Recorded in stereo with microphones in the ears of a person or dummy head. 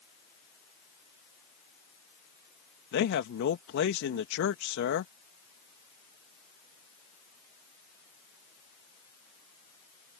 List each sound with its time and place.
2.9 s a man speaking: 60° left (ahead or behind)